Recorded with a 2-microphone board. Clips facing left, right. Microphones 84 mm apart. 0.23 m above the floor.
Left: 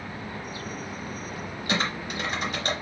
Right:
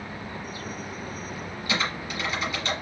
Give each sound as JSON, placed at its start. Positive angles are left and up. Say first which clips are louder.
{"t": 1.7, "sound": "typing on a keyboard", "louder": "left 1 dB", "side_deg": 60, "distance_m": 3.5}